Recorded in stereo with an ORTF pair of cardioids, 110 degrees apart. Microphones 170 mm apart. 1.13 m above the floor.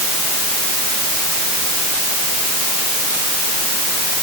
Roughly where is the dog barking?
I don't hear a dog barking.